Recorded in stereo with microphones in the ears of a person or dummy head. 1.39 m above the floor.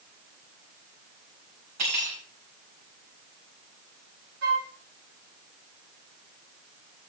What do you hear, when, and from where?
1.8 s cutlery clinking: 50° right (ahead or behind), 4.5 m
4.4 s a flute: 55° right (ahead or behind), 2.5 m